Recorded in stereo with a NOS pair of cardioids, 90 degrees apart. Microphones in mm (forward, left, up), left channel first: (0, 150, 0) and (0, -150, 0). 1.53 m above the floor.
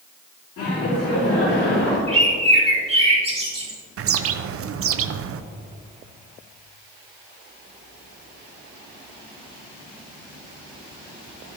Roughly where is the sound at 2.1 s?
Ahead.